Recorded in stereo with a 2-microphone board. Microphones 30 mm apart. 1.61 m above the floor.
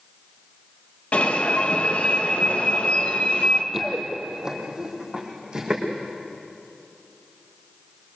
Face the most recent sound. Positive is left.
turn(degrees=-30)  # may be behind; listen again after turning